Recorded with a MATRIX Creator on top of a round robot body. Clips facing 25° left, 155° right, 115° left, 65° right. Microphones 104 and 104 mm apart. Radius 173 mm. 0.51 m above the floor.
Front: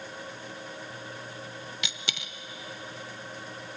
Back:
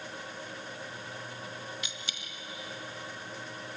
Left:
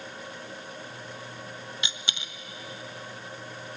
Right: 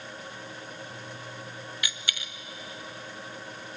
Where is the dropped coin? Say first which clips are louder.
Front 4 dB, even; 45° left, 0.8 m.